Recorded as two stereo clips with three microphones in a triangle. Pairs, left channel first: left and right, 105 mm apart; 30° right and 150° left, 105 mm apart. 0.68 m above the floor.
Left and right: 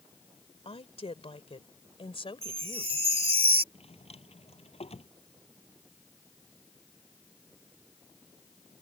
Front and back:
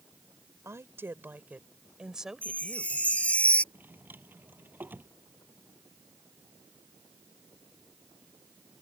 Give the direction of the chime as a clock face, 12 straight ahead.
4 o'clock.